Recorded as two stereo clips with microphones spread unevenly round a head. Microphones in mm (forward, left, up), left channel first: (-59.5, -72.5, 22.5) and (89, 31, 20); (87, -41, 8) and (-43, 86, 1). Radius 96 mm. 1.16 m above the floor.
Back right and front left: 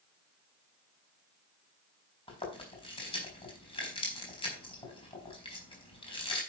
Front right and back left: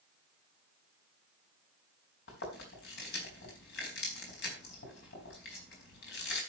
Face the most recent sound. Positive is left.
turn(degrees=-85)